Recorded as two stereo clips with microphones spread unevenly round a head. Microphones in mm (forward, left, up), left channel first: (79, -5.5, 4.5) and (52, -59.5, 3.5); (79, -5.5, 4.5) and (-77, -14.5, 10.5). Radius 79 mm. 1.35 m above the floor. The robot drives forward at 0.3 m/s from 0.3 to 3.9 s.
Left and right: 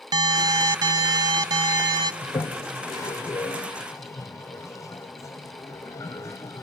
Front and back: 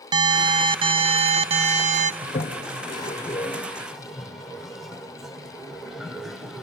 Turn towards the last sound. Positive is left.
turn(degrees=95)